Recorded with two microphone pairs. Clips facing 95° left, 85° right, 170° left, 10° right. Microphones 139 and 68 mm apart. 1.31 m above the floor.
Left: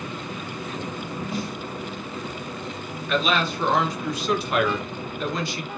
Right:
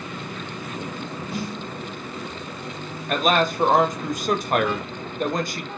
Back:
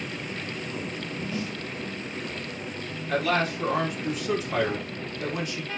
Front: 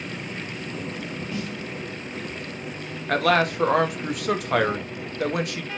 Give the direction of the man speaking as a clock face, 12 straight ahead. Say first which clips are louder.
Right 3 dB, front 5 dB; 1 o'clock.